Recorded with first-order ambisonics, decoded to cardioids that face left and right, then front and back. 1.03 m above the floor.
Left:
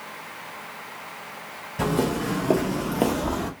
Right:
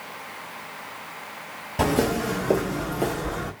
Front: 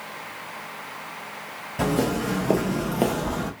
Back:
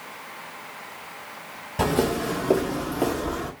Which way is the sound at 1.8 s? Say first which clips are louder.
Right 2 dB, back 1 dB; 115° right.